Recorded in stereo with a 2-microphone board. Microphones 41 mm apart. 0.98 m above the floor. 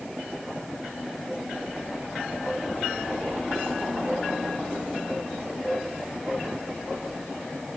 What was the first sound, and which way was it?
Only background noise.